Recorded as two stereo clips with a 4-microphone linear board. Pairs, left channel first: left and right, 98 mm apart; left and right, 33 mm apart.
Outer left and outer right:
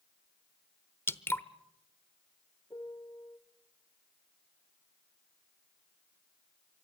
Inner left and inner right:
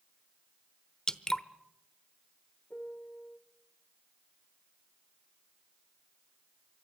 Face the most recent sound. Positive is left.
turn(degrees=40)  # may be behind; listen again after turning